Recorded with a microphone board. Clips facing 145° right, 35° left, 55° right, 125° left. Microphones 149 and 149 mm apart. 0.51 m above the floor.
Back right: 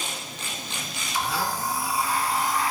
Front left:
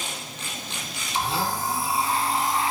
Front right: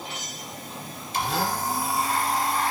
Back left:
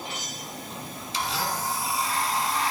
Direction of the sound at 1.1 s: 25° right.